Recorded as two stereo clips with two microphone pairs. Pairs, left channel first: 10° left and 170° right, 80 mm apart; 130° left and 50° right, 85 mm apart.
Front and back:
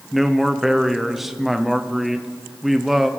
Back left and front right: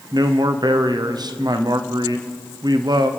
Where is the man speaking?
85° right, 0.8 m.